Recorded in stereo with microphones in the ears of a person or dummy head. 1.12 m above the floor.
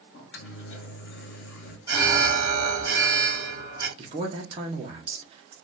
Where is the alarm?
20° right (ahead or behind), 1.4 m.